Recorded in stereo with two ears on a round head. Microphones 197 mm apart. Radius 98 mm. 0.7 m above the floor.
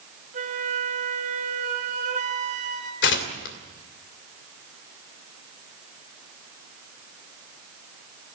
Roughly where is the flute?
Right.